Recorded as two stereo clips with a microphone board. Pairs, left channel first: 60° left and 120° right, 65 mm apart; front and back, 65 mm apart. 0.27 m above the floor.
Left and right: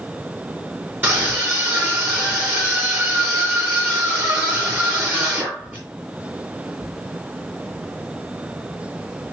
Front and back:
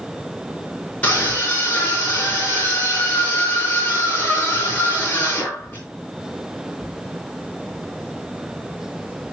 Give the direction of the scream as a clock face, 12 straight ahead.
2 o'clock.